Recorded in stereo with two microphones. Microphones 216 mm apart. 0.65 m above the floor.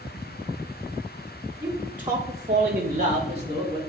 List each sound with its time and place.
1.6 s a man speaking: 15° right (ahead or behind), 2 m; by 3.8 s 20° right (ahead or behind), 1.9 m